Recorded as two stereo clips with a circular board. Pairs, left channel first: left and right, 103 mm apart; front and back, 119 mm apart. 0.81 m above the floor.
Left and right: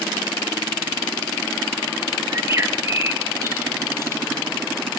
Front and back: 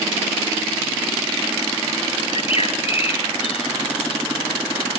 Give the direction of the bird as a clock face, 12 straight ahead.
1 o'clock.